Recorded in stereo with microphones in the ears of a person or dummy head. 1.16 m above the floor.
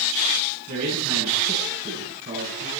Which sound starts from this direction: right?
A man speaking, at 0.7 s.